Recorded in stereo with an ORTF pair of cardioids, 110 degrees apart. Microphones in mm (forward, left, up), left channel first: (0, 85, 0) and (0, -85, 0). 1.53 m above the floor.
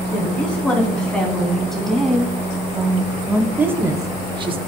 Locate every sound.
0.1 s a woman speaking: 5° left, 3 m; by 4.6 s 35° right, 0.8 m